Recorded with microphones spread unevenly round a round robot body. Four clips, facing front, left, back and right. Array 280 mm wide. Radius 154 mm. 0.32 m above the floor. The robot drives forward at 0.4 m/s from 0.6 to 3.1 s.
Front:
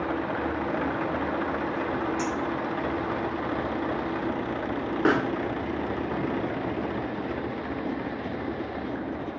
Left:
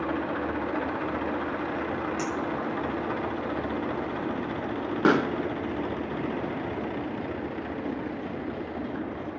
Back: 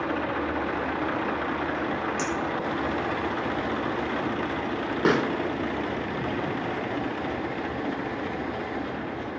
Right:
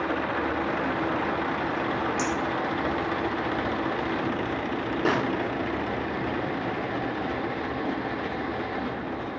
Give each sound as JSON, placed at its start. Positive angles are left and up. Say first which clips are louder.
{"t": 2.2, "sound": "a clink", "louder": "right 2 dB, even", "azimuth_deg": 165, "distance_m": 7.0}
{"t": 5.0, "sound": "a pop", "louder": "left 4 dB, back 1 dB", "azimuth_deg": 110, "distance_m": 0.7}